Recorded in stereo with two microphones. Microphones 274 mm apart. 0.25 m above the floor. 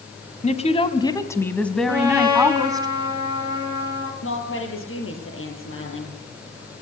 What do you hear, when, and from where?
0.4 s a woman speaking: 25° left (ahead or behind), 1.9 m; by 2.9 s 15° right (ahead or behind), 2.0 m
1.9 s a trumpet: 15° right (ahead or behind), 6 m
4.2 s a woman speaking: 50° left (ahead or behind), 7 m